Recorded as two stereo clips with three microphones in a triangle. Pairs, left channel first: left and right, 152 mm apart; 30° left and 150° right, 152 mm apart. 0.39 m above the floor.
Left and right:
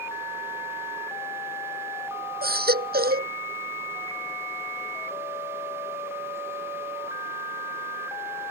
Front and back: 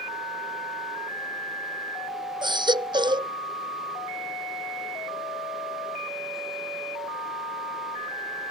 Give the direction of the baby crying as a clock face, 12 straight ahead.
3 o'clock.